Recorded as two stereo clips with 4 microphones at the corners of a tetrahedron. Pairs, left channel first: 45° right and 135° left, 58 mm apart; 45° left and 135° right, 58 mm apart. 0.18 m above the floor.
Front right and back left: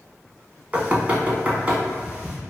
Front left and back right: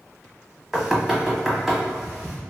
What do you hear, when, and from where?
0.7 s knocking: 155° left, 0.8 m